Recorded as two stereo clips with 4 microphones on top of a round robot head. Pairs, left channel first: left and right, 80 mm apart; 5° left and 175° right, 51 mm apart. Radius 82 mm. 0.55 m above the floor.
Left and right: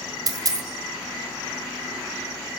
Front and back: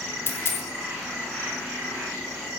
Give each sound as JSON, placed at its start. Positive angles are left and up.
{"t": 0.3, "sound": "a dropped coin", "azimuth_deg": -45, "distance_m": 1.5}